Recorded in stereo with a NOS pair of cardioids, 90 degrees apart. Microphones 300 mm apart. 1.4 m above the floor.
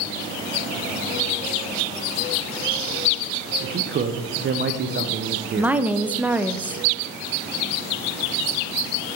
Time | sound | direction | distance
3.6 | a man speaking | 35° right | 0.7 m
5.6 | a woman speaking | 5° right | 0.5 m